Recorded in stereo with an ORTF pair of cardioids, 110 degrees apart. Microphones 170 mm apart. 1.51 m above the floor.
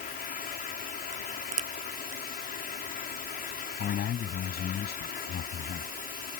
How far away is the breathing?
No breathing in this recording.